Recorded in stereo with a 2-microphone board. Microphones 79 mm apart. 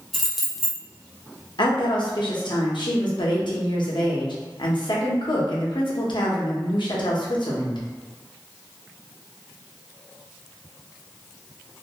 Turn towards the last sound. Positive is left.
turn(degrees=70)  # may be behind; listen again after turning